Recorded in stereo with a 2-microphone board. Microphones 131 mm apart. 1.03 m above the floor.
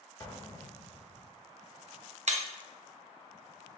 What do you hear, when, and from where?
0.2 s an explosion: 30° left (ahead or behind), 0.6 m
2.3 s breaking glass: 60° right (ahead or behind), 0.7 m